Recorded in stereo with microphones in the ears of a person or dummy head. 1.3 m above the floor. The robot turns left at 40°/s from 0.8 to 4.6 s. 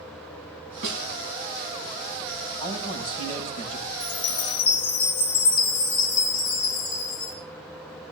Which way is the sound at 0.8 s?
70° right (ahead or behind).